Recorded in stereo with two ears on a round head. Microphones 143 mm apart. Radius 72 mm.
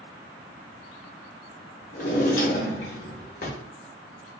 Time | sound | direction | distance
1.9 | a drawer | 50° left (ahead or behind) | 0.6 m